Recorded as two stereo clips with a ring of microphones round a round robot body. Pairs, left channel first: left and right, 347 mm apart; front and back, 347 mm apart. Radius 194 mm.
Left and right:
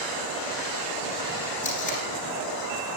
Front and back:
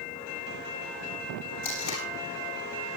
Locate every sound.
1.6 s tape being pulled: 20° left, 9 m